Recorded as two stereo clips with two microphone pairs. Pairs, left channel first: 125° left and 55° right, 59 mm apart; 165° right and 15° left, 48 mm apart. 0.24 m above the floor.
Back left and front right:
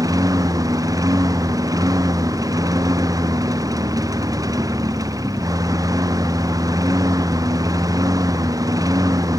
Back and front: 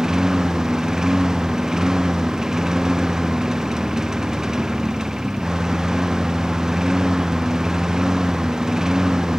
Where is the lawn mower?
60° right.